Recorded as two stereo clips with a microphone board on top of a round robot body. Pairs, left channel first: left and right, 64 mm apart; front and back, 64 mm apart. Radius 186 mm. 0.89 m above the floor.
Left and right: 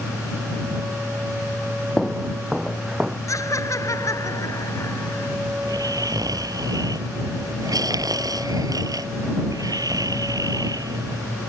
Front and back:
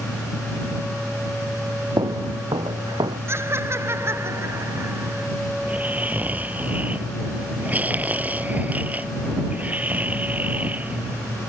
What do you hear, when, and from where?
2.0 s footsteps: 175° left; by 3.2 s 165° right
3.3 s laughter: 130° left
5.6 s snoring: 115° right